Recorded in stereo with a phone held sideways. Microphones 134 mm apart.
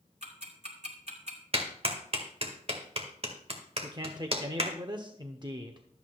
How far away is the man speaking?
About 0.8 m.